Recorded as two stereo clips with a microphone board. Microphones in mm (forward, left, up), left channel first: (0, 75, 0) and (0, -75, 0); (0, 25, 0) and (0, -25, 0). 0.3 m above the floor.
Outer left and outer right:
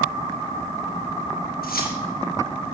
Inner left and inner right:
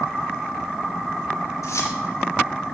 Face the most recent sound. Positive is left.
turn(degrees=75)  # may be behind; listen again after turning